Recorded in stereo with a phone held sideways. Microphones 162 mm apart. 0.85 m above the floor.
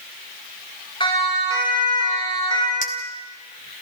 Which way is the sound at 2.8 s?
55° left (ahead or behind).